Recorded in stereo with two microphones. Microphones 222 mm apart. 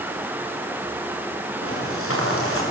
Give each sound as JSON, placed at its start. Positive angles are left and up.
{"t": 1.6, "sound": "footsteps", "side_deg": 80, "distance_m": 8.5}